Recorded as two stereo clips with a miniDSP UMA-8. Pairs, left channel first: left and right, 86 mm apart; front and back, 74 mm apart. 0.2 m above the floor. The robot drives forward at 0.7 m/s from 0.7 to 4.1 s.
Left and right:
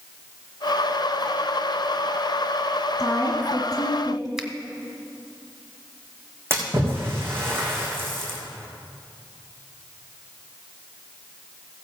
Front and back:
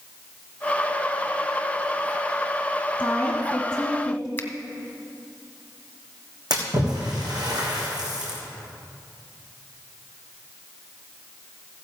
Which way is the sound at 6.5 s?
155° right.